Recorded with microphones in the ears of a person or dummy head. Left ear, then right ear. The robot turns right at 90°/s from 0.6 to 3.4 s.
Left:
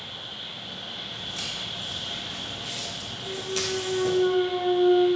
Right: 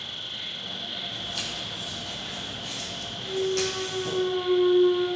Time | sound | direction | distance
0.0 | an insect | 80° right | 1.6 m
1.1 | footsteps | 35° right (ahead or behind) | 3 m
3.2 | a clunk | 85° left | 1.7 m